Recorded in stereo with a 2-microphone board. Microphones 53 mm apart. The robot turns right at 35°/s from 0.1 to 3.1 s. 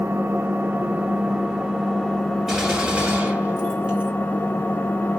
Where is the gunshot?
Centre (ahead or behind), 2.5 m; by 4.1 s 25° right (ahead or behind), 2.5 m.